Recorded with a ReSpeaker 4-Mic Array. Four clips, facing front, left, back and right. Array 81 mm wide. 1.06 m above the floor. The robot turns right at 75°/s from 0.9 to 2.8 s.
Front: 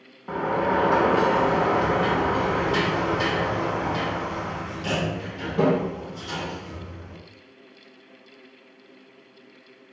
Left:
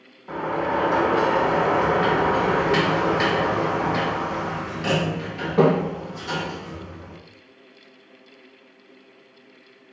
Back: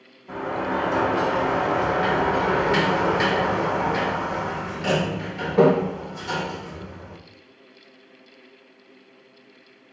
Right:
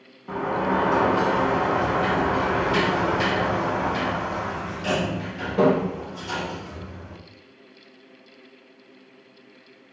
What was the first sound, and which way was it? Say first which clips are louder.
A sliding door: even, front 3 dB; 5° right.